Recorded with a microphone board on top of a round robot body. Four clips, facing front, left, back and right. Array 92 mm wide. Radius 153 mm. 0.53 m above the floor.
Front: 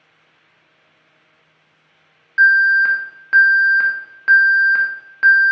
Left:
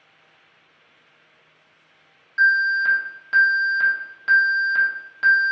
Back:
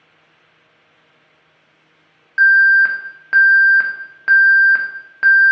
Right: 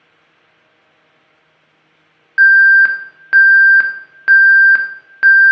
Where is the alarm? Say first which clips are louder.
Right 11 dB, back 2 dB; 100° right, 0.6 m.